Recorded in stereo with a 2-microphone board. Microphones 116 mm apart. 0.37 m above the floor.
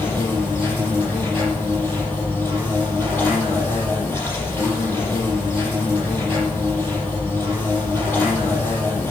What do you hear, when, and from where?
0.0 s an insect: 15° left (ahead or behind), 7.5 m